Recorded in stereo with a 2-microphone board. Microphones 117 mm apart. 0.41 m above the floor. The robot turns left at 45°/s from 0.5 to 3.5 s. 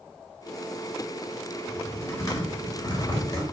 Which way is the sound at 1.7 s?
20° left (ahead or behind).